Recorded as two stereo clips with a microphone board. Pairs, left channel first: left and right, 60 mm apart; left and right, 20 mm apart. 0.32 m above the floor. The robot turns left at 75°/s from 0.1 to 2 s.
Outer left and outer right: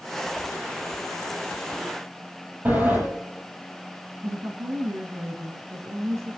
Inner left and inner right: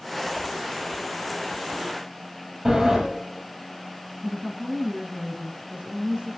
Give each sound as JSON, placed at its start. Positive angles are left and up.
{"t": 2.6, "sound": "a sliding door", "side_deg": -35, "distance_m": 8.0}
{"t": 4.2, "sound": "a woman speaking", "side_deg": -70, "distance_m": 2.5}